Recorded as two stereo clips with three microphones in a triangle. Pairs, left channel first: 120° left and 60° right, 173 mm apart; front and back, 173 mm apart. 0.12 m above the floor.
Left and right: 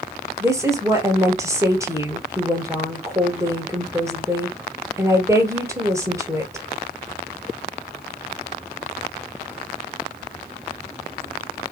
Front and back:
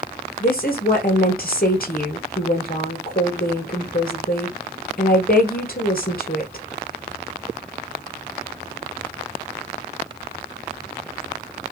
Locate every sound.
0.4 s a woman speaking: 10° left, 2.5 m